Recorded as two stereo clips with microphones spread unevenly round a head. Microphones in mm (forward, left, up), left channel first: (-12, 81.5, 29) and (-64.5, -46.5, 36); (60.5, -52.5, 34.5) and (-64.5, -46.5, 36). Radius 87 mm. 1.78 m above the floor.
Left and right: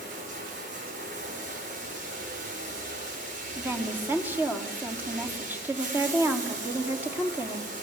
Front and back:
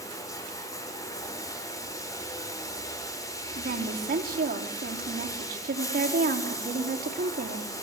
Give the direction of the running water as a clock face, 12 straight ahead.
2 o'clock.